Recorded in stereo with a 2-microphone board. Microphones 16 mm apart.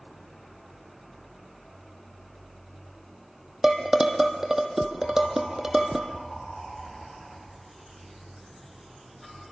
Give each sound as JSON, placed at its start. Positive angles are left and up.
{"t": 3.6, "sound": "dishes clattering", "side_deg": -25, "distance_m": 2.5}